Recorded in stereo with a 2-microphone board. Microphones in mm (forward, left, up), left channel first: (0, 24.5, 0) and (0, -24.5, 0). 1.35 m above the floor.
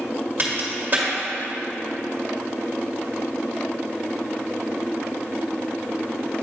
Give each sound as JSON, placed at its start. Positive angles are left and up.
{"t": 0.4, "sound": "a crack", "side_deg": -40, "distance_m": 1.7}